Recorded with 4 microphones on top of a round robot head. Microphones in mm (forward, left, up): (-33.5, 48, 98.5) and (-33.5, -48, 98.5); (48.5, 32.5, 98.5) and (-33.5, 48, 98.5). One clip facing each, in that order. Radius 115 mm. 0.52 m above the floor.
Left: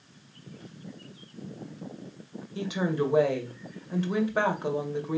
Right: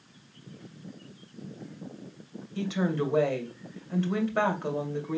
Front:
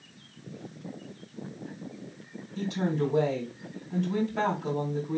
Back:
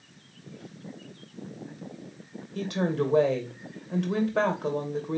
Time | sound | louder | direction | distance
2.5 | a woman speaking | even, back 1 dB | 160° left | 2 m